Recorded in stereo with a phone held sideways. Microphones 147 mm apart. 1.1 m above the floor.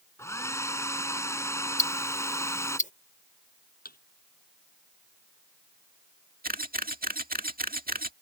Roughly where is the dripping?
I don't hear dripping.